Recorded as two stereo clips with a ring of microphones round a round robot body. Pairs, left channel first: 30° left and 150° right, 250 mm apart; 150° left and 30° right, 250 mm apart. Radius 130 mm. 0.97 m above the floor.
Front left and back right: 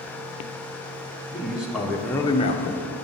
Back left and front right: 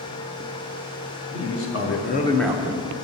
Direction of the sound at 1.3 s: 125° left.